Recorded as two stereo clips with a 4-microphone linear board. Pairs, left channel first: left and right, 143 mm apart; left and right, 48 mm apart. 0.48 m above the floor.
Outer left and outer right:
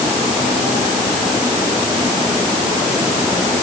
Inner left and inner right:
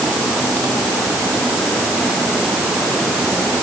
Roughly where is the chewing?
I don't hear chewing.